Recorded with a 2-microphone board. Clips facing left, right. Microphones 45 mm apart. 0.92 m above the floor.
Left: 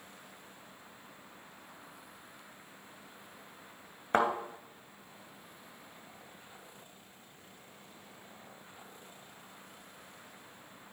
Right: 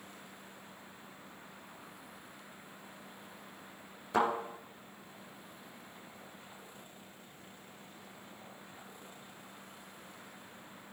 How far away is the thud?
About 1.9 m.